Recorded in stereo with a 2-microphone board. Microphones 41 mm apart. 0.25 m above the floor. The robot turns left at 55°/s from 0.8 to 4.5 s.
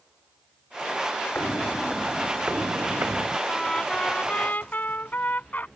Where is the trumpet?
Straight behind; by 5.7 s 120° left.